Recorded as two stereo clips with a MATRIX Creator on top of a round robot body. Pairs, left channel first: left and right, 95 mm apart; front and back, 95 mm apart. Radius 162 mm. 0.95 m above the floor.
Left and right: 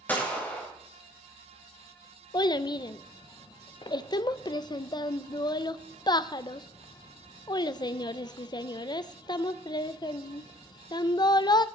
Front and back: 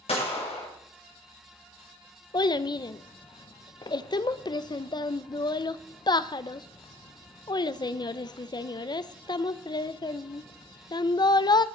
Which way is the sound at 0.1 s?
15° left.